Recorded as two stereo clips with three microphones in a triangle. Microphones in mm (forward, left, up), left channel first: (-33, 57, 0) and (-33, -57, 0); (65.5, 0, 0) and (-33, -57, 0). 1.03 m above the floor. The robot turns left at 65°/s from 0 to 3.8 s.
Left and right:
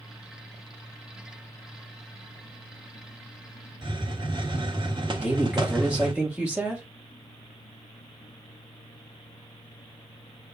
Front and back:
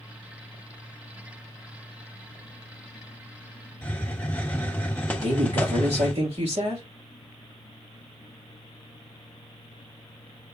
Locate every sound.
3.8 s a hiss: 45° right, 0.9 m
5.1 s a woman speaking: 170° right, 2.5 m